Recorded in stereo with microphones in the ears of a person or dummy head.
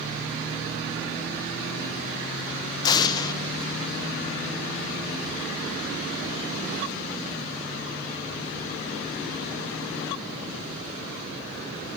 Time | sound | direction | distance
2.8 | an explosion | 25° left (ahead or behind) | 0.7 m